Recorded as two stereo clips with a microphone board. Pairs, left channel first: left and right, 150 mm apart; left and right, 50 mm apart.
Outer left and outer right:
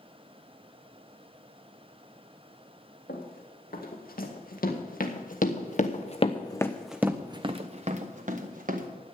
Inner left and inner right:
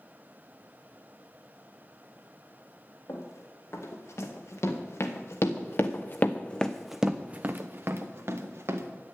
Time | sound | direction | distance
3.1 | running footsteps | 80° left | 3 m